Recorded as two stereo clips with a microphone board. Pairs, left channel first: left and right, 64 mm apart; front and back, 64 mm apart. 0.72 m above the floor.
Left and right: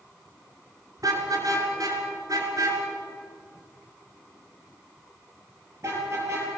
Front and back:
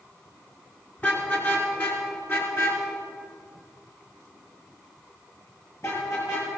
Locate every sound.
1.0 s a car horn: 60° right, 4 m; by 6.5 s 45° right, 7.5 m